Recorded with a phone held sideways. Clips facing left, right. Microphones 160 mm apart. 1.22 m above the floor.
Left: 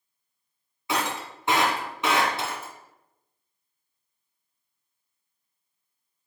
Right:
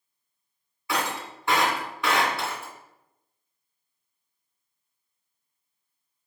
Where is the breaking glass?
20° left (ahead or behind), 1.9 m.